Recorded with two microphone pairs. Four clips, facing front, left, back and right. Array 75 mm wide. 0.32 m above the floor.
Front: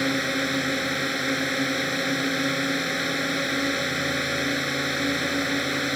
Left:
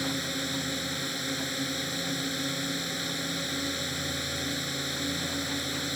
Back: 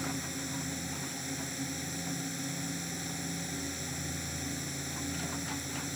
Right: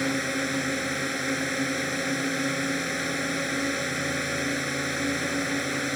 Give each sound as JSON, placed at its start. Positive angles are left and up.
{"t": 0.0, "sound": "a drone", "azimuth_deg": -25}